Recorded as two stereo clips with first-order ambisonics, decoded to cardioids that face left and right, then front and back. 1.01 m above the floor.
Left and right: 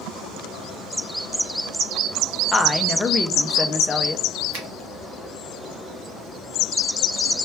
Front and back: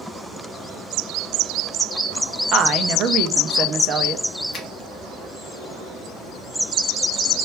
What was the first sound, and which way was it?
A woman speaking, 160° left.